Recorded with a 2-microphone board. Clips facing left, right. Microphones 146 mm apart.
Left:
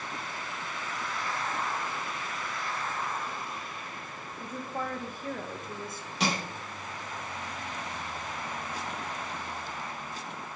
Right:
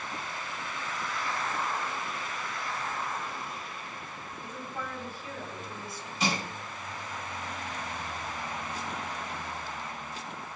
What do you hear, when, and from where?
4.4 s a woman speaking: 50° left (ahead or behind), 1.5 m
6.2 s crushing: 70° left (ahead or behind), 4.5 m